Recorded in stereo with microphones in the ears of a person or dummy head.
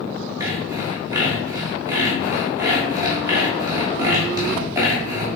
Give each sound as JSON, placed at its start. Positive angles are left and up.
{"t": 0.4, "sound": "sawing", "side_deg": -25, "distance_m": 1.0}